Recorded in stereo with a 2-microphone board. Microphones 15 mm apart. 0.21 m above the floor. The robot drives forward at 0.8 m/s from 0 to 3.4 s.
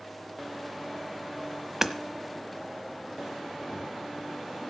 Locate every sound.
1.8 s hammering: 20° right (ahead or behind), 1.0 m